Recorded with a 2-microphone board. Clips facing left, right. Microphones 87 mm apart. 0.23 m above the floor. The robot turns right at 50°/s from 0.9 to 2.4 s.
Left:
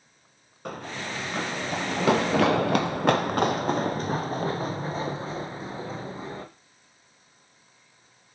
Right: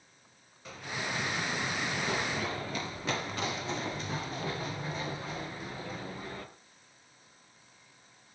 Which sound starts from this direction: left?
Running footsteps, at 0.7 s.